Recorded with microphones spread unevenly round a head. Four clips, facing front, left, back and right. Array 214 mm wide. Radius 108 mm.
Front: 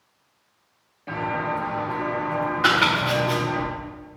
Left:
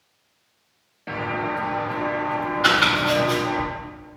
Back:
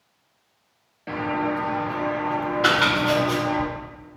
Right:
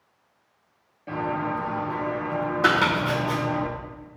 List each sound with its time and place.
1.1 s footsteps: 135° left, 1.9 m; by 3.6 s 150° left, 3 m
2.6 s chopping: 100° right, 1.7 m